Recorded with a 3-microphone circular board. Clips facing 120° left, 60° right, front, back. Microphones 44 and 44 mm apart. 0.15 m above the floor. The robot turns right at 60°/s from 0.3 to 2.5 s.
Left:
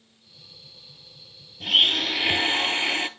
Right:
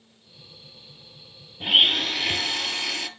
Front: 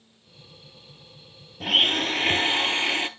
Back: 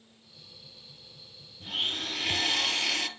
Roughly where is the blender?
Ahead.